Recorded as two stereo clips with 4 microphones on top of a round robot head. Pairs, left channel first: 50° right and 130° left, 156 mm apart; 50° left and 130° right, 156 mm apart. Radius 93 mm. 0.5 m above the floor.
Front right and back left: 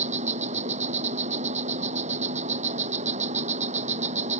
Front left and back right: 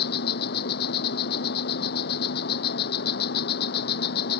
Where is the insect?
80° left.